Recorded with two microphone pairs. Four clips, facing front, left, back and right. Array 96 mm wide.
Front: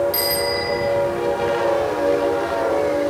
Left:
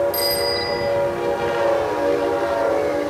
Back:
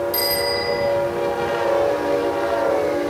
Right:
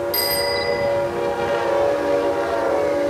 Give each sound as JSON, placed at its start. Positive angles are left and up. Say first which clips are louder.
{"t": 0.1, "sound": "a bicycle bell", "louder": "even, even", "azimuth_deg": -40, "distance_m": 10.0}